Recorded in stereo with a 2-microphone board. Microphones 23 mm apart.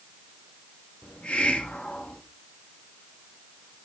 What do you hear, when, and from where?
1.0 s a hiss: 70° left (ahead or behind), 1.8 m